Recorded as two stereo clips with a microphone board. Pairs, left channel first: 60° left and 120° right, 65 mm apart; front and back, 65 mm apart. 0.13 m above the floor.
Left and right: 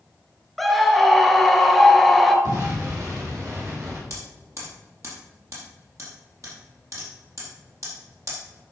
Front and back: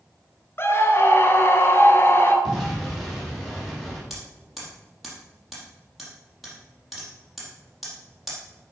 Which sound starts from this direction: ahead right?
A scream, at 0.6 s.